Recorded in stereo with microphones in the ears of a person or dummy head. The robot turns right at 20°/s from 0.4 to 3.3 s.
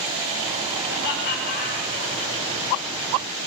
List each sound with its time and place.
0.9 s laughter: 55° left (ahead or behind), 6 m; by 2.3 s 25° left (ahead or behind), 6 m